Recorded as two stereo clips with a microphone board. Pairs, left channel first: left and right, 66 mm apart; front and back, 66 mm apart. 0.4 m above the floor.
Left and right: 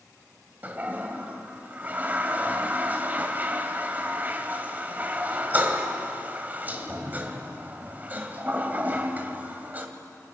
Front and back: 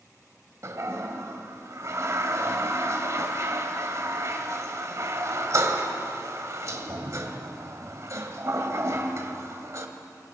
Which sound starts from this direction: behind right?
A toilet flushing, at 0.6 s.